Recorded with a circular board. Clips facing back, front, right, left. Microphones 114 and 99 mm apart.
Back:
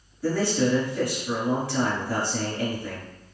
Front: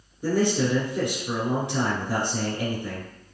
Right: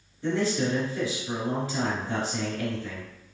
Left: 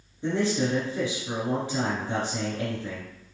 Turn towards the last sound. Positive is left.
turn(degrees=40)